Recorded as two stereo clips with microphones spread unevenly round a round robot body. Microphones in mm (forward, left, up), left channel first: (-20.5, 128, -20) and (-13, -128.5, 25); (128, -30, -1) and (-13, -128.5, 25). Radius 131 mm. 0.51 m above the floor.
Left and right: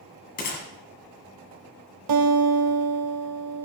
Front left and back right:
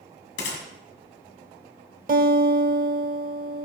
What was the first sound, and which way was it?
A gunshot, 35° left.